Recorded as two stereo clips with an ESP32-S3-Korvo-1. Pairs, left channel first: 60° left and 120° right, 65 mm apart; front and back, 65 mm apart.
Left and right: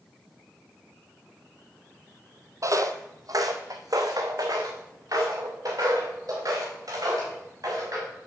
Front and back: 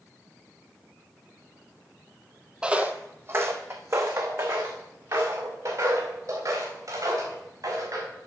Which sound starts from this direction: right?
Footsteps, at 2.6 s.